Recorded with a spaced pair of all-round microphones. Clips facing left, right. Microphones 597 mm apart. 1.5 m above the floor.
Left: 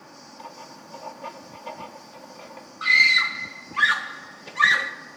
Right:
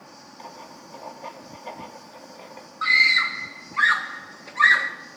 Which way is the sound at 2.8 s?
55° left (ahead or behind).